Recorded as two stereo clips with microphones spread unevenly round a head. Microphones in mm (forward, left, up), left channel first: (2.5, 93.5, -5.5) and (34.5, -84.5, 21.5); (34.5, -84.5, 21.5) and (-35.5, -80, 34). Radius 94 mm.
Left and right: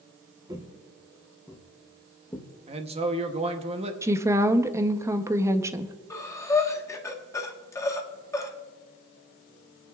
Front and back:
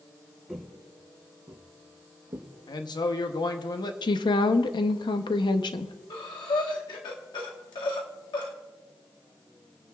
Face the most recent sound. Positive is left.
turn(degrees=25)